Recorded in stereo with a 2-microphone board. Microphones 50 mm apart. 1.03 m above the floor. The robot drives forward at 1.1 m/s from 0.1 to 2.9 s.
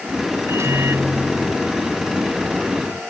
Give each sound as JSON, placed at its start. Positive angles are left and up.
{"t": 0.5, "sound": "a microwave", "side_deg": -65}